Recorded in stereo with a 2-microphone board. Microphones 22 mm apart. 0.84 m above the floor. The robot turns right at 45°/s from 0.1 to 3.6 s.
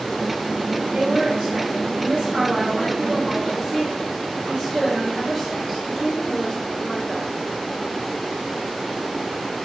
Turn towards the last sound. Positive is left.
turn(degrees=-5)